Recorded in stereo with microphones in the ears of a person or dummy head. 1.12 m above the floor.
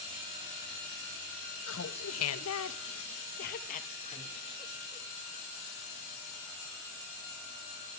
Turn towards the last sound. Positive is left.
turn(degrees=20)  # may be behind; listen again after turning